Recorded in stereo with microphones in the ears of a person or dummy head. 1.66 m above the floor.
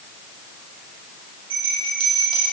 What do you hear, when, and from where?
1.5 s a bell: 30° right (ahead or behind), 2.5 m